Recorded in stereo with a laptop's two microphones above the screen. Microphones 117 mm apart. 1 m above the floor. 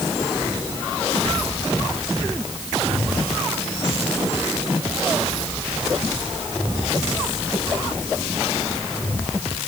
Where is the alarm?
I don't hear an alarm.